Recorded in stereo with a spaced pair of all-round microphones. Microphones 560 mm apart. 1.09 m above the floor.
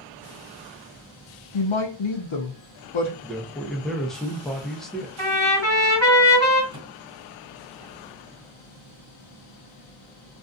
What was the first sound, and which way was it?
A woman speaking, 60° left (ahead or behind).